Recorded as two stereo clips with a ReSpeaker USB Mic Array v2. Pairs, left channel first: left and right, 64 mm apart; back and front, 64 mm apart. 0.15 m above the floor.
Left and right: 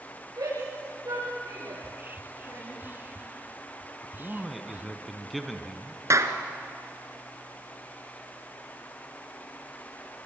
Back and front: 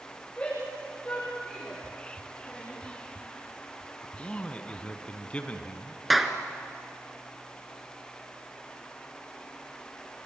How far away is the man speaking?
About 1.5 m.